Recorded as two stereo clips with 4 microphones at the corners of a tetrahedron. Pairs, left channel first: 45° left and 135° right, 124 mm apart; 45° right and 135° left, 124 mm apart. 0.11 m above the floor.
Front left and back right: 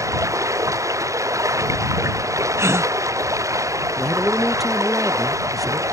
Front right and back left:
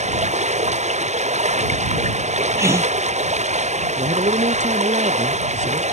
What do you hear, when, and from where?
0.0 s running water: 160° left
2.6 s a gasp: 175° left
4.0 s a man speaking: 135° left